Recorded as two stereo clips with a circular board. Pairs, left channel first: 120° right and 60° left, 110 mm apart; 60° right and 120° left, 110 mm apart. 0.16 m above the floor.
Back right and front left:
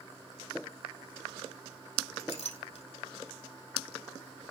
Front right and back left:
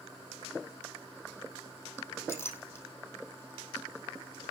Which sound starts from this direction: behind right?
A clink, at 2.2 s.